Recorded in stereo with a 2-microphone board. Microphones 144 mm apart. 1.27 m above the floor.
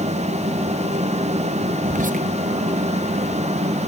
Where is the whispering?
65° right (ahead or behind), 0.7 m.